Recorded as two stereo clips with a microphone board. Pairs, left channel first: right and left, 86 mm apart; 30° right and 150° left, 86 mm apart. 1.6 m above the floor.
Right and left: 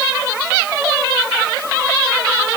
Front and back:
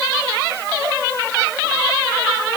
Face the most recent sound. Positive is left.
No sound to turn to.